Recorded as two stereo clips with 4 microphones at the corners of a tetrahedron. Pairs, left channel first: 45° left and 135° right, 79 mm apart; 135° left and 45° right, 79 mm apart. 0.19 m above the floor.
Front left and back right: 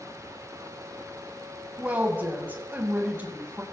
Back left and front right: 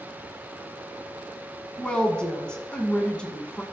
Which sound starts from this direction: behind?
A woman speaking, at 1.8 s.